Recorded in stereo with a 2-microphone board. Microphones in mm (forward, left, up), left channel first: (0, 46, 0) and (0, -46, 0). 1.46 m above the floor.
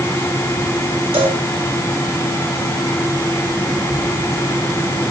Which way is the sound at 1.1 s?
75° right (ahead or behind).